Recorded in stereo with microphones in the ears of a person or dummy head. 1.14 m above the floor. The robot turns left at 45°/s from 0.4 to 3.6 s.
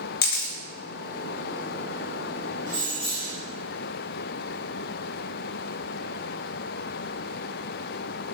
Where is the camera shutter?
55° left (ahead or behind), 0.6 m; by 0.5 s 60° left (ahead or behind), 0.6 m.